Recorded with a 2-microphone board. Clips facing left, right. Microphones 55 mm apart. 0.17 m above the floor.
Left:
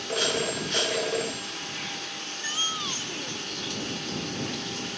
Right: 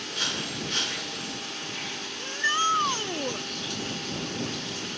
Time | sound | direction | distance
0.1 | a phone ringing | 85° left | ?
2.2 | a shout | 50° right (ahead or behind) | ?